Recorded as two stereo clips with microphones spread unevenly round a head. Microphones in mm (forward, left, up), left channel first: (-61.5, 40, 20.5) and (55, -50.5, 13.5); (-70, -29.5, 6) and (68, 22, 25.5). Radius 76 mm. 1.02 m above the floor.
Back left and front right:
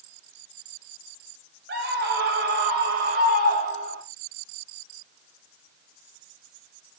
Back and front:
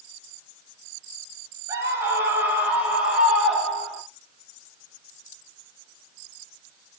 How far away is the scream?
About 5.5 m.